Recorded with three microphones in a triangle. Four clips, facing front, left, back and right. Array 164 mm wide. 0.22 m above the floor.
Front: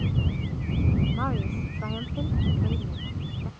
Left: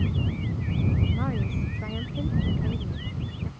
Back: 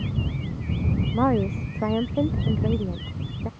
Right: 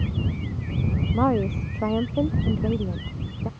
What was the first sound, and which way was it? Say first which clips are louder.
A woman speaking: right 8 dB, back 8 dB; 135° right.